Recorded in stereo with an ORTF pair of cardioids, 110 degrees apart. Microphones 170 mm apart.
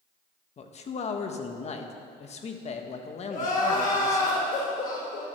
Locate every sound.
0.6 s a man speaking: 40° left, 1.4 m
3.3 s crying: 50° left, 5.5 m